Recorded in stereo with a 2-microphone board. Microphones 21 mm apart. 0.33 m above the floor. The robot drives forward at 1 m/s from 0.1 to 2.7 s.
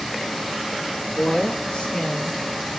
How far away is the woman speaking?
About 5 m.